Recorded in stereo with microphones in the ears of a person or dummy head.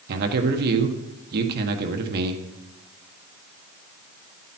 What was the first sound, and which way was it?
A man speaking, 60° right (ahead or behind).